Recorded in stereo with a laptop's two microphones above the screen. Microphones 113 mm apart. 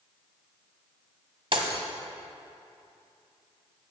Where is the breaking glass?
50° right (ahead or behind), 1.3 m.